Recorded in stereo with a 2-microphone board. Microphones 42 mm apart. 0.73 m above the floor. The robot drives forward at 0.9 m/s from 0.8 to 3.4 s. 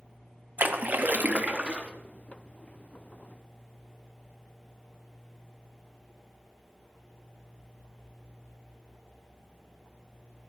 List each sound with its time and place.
0.6 s a splash: 40° right (ahead or behind), 0.9 m; by 1.9 s 25° right (ahead or behind), 1.3 m